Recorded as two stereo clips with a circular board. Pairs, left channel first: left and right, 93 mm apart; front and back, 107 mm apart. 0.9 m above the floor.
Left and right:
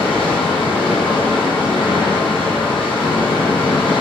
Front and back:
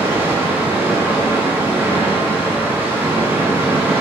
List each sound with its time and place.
0.0 s running water: 105° left, 0.8 m